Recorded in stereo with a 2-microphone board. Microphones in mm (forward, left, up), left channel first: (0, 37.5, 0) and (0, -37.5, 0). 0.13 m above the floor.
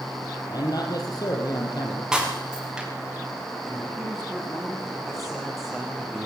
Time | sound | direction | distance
0.5 | a man speaking | 60° left (ahead or behind) | 4.5 m
2.1 | breaking glass | 10° right (ahead or behind) | 7 m
3.7 | a man speaking | centre (ahead or behind) | 9.5 m